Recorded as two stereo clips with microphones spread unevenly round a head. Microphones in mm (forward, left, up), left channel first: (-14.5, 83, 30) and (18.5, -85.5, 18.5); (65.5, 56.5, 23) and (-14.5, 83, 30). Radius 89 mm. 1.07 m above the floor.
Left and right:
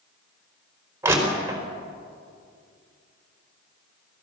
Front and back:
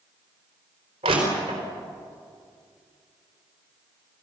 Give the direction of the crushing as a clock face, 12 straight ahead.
5 o'clock.